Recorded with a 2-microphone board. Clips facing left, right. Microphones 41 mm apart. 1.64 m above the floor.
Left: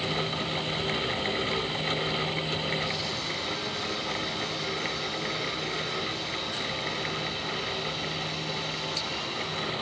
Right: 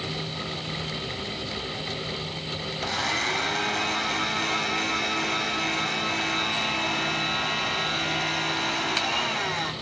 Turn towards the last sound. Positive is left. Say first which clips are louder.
# right 5 dB
turn(degrees=-60)  # may be behind; listen again after turning